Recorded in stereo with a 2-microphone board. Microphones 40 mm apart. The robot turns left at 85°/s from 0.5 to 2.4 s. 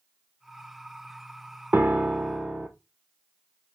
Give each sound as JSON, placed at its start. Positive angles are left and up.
{"t": 1.7, "sound": "a piano", "azimuth_deg": -125, "distance_m": 1.0}